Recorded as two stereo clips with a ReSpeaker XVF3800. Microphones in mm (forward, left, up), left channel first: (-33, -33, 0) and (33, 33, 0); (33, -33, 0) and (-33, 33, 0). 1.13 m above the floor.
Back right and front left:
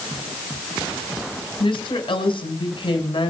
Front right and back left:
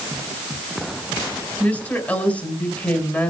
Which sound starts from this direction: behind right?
A woman speaking, at 1.6 s.